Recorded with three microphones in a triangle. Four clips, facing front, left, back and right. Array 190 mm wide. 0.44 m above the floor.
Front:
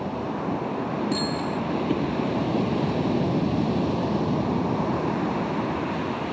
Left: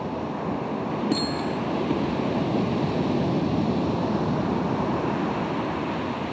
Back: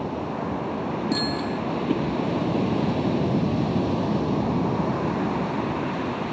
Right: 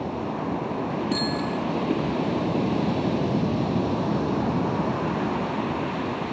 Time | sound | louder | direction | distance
1.1 | a bicycle bell | even, even | straight behind | 3 m